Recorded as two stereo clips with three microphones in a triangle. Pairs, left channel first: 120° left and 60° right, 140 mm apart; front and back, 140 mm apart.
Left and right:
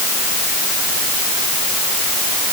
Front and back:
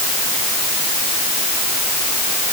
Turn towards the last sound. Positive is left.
No sound to turn to.